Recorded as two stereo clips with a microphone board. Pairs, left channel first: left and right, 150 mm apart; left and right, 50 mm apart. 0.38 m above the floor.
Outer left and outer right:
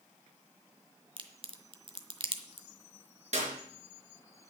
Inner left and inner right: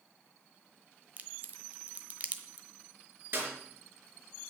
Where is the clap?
50° right (ahead or behind), 4 m.